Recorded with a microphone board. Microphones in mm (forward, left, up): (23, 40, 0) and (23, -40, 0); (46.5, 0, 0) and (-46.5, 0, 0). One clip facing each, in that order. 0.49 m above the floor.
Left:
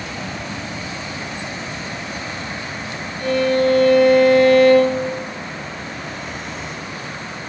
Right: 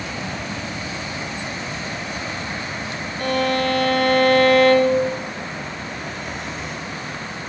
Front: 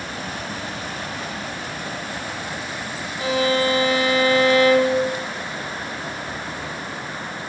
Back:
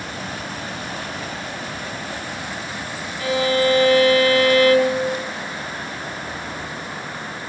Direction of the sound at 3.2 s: 65° right.